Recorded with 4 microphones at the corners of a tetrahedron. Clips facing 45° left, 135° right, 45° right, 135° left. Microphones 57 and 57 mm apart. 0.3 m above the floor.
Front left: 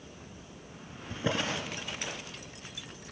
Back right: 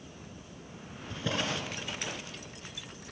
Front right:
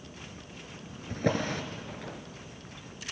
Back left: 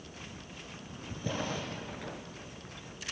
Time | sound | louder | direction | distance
1.1 | a drawer | front left 1 dB, front right 6 dB | 15° right | 2.0 m